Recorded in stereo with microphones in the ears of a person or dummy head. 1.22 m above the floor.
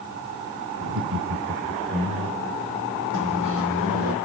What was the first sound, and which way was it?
Laughter, 75° right (ahead or behind).